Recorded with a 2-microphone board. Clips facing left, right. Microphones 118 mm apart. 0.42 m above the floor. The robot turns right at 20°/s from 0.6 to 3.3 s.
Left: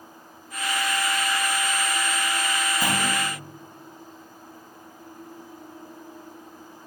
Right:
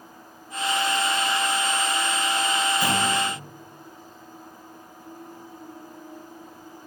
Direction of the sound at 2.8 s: 35° left (ahead or behind).